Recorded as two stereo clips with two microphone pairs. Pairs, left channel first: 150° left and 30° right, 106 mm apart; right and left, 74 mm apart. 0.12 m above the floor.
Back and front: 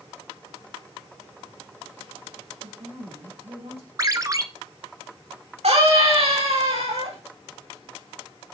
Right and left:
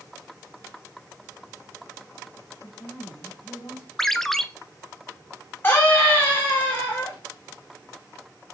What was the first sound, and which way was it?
A woman speaking, 35° right.